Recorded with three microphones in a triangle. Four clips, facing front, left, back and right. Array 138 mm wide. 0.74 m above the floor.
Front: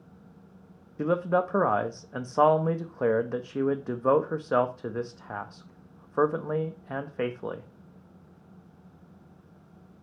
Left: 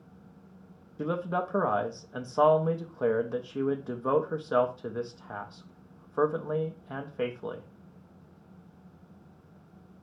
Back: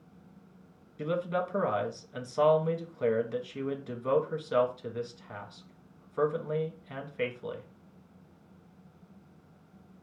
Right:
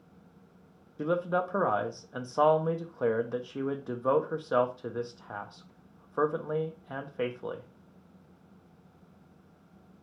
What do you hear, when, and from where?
1.0 s a man speaking: straight ahead, 0.5 m